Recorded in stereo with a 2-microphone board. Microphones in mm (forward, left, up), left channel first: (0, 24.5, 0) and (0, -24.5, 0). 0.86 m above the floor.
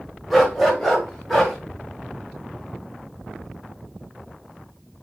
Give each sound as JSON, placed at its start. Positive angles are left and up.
{"t": 0.3, "sound": "a dog barking", "side_deg": 0, "distance_m": 1.4}